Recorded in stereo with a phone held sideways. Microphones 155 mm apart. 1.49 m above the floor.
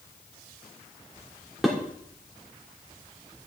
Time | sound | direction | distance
1.6 | dishes clattering | centre (ahead or behind) | 2.5 m